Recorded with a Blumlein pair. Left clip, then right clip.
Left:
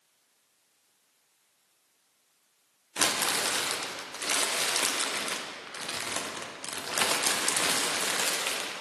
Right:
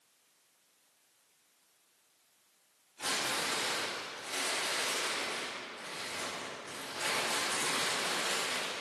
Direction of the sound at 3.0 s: 45° left.